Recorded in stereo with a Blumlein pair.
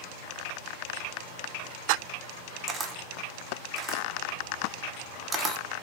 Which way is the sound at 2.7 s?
20° right.